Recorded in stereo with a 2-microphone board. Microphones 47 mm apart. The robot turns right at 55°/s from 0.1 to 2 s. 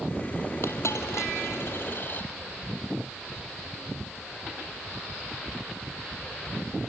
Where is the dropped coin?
60° left (ahead or behind), 2.0 m; by 2.3 s 40° left (ahead or behind), 2.0 m.